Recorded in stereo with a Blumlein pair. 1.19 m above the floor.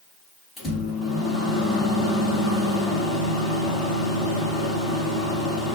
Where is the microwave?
15° left, 1.2 m.